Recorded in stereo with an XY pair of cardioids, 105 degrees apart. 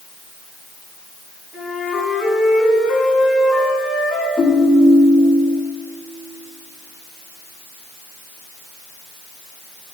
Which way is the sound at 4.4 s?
45° left.